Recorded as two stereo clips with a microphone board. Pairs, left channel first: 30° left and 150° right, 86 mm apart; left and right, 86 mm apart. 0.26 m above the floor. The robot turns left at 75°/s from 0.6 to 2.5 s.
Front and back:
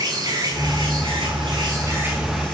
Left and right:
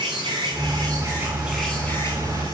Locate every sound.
0.0 s an insect: 105° right, 7.5 m; by 2.5 s 110° left, 7.5 m